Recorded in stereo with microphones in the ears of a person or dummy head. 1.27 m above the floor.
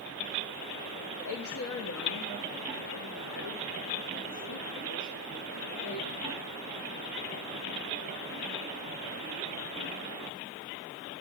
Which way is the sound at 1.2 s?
60° left (ahead or behind).